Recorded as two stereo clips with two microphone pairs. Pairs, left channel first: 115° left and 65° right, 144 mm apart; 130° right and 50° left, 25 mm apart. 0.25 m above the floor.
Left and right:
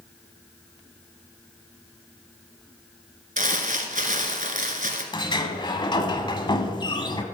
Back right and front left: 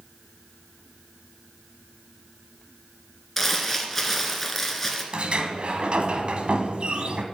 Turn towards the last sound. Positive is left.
turn(degrees=70)